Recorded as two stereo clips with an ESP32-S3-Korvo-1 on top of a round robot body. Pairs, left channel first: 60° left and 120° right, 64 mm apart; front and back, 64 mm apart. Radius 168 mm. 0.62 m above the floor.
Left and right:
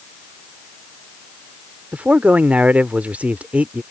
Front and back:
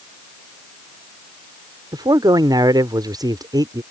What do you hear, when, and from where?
1.9 s a man speaking: 170° left